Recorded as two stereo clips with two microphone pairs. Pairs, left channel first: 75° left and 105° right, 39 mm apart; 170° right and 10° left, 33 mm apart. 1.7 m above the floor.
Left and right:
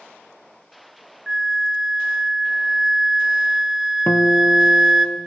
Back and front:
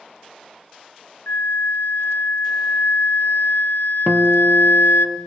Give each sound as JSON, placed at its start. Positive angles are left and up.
{"t": 1.3, "sound": "a flute", "azimuth_deg": 175, "distance_m": 0.5}
{"t": 4.1, "sound": "a guitar", "azimuth_deg": 60, "distance_m": 0.9}